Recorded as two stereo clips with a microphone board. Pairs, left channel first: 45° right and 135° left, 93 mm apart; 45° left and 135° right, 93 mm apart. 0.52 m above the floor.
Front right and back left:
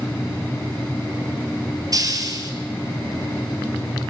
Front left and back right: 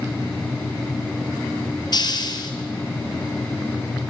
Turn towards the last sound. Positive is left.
turn(degrees=85)